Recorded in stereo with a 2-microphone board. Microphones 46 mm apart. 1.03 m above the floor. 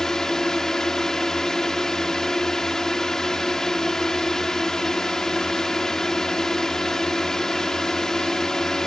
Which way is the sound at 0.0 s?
10° left (ahead or behind).